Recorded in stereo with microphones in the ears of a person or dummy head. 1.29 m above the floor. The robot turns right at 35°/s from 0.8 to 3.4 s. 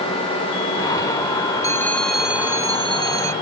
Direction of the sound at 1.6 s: 165° left.